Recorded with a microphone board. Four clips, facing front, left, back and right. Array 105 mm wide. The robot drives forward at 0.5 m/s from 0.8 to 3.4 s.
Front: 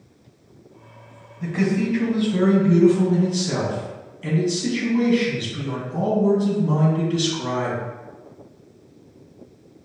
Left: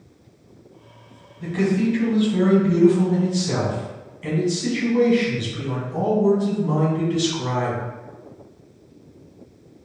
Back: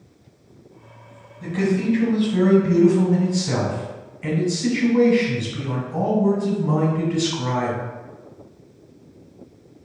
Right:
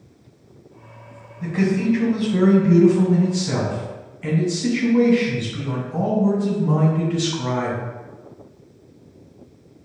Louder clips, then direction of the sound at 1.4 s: Even, back 1 dB; 35° right.